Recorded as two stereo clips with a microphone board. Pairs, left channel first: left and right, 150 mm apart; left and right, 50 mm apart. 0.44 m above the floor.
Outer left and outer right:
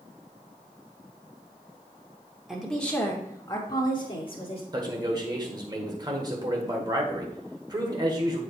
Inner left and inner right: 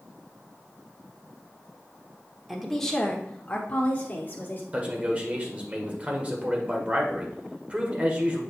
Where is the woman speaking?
Centre (ahead or behind), 1.1 m; by 4.6 s 45° left (ahead or behind), 1.6 m.